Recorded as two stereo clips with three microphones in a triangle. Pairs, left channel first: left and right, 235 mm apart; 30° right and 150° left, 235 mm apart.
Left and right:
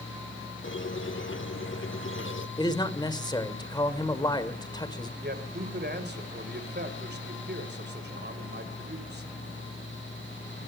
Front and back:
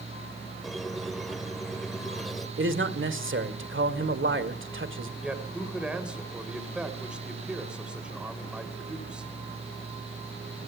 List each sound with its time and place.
0.6 s a squeak: 60° left, 1.1 m
2.6 s a man speaking: 160° left, 2 m
5.2 s a man speaking: 125° right, 2.5 m